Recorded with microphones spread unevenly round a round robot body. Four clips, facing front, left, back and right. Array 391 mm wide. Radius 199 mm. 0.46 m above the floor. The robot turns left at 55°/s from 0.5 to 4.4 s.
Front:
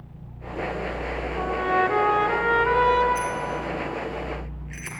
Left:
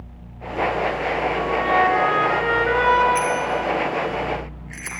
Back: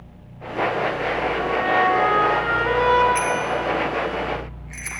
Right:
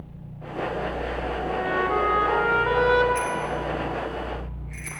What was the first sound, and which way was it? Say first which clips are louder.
A trumpet: left 6 dB, back 1 dB; 30° left.